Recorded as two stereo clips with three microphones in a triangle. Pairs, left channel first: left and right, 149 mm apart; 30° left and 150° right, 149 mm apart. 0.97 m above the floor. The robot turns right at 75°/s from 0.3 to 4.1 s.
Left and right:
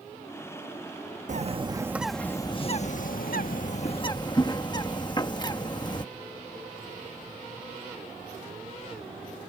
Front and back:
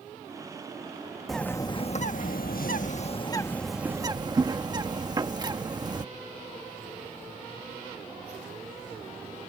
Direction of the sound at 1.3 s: 60° right.